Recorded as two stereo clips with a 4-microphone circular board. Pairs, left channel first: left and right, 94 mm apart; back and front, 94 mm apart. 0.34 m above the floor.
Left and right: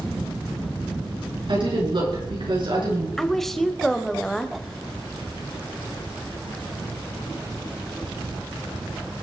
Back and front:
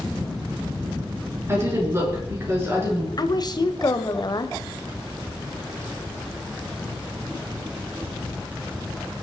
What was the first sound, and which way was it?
A woman speaking, 60° right.